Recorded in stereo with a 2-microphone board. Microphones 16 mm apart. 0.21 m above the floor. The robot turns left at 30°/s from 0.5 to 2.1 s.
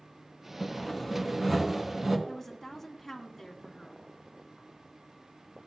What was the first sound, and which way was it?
Sawing, straight ahead.